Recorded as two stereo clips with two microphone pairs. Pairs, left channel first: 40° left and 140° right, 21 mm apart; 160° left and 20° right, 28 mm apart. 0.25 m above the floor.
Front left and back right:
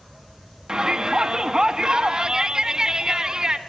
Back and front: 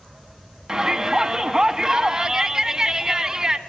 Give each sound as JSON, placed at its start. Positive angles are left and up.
{"t": 0.7, "sound": "a shout", "azimuth_deg": -80, "distance_m": 2.5}